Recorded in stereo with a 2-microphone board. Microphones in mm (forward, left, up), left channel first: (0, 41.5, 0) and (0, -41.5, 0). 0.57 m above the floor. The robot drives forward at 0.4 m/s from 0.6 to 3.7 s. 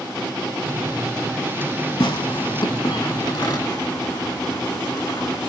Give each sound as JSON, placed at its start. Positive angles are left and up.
{"t": 2.0, "sound": "tearing paper", "side_deg": 70, "distance_m": 0.9}